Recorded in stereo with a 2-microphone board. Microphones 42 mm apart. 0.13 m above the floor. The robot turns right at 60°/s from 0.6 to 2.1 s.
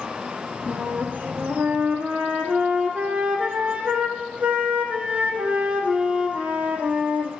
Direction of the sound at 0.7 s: 135° right.